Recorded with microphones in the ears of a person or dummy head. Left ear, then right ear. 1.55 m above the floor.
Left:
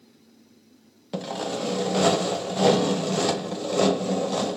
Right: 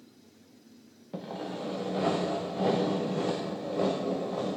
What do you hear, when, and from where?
1.1 s sawing: 85° left, 0.5 m